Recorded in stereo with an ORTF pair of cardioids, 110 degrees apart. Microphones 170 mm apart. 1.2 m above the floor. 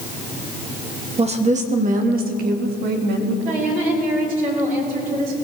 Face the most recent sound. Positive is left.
turn(degrees=-50)